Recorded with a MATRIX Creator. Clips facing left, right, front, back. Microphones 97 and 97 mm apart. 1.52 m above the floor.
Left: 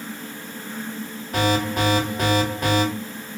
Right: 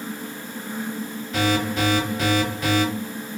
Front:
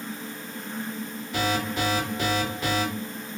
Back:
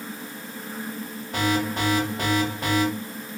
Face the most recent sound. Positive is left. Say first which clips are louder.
# left 1 dB, back 2 dB
turn(degrees=135)